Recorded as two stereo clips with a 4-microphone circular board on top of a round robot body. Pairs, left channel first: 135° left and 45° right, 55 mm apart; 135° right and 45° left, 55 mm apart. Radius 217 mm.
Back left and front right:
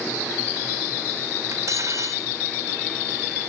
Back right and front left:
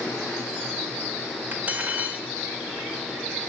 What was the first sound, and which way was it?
Cutlery clinking, 15° right.